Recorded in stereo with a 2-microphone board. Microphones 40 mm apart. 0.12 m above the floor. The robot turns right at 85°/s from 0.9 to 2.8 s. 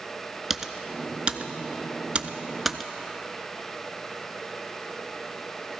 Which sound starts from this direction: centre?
Typing on a keyboard, at 0.5 s.